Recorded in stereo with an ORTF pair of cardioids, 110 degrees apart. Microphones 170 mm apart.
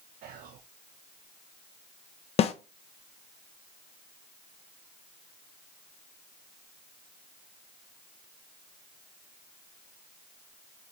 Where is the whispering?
60° right, 0.5 m.